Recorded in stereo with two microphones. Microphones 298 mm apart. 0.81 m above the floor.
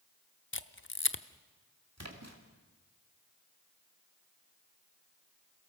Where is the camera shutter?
40° left (ahead or behind), 0.7 m.